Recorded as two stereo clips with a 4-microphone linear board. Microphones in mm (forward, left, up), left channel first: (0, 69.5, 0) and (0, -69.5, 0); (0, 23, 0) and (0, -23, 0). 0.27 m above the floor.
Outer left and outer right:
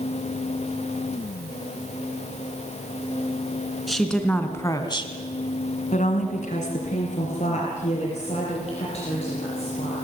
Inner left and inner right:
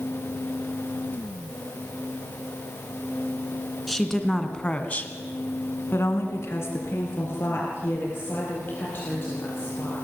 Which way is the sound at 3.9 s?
Centre (ahead or behind).